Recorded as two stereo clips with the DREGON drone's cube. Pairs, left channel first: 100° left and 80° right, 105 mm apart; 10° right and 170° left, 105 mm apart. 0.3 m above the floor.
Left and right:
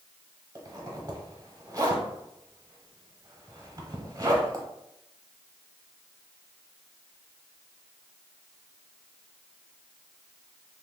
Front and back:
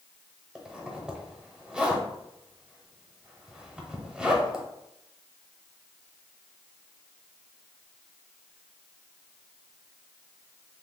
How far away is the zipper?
About 0.8 m.